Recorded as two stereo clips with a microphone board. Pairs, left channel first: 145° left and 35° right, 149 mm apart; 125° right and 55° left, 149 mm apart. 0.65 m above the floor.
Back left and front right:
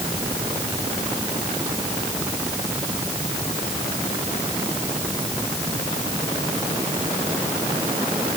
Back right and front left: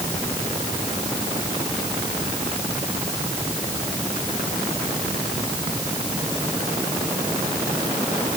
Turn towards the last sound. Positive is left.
No sound to turn to.